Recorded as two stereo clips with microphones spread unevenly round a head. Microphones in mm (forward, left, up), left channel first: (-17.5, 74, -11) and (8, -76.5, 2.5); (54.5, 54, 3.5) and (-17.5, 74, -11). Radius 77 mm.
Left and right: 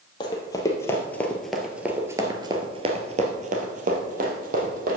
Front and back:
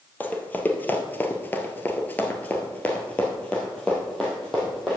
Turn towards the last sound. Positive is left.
turn(degrees=-100)